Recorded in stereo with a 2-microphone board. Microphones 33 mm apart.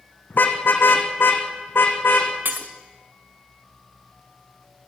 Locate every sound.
0.3 s a car horn: 60° left (ahead or behind), 3.5 m; by 2.3 s 75° left (ahead or behind), 4.5 m
2.5 s breaking glass: 65° right (ahead or behind), 1.8 m